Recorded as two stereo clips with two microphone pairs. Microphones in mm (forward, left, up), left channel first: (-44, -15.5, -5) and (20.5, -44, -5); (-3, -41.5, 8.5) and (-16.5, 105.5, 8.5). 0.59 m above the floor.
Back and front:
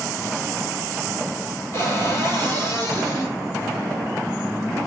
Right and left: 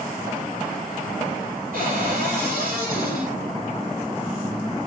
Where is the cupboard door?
105° left, 5 m.